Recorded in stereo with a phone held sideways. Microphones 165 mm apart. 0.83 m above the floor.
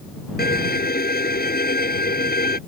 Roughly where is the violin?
Left.